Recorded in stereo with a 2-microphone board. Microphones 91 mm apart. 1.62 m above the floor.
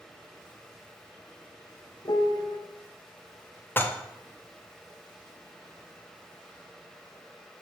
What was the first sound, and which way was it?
A piano, 55° left (ahead or behind).